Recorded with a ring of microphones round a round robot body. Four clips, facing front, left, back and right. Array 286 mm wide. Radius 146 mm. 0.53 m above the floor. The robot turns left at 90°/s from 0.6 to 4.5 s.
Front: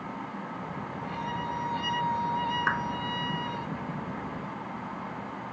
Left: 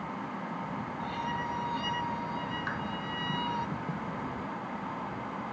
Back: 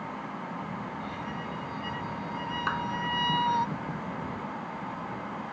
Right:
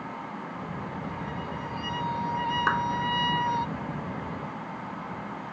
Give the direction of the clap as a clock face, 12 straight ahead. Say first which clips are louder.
Right 10 dB, front 2 dB; 3 o'clock.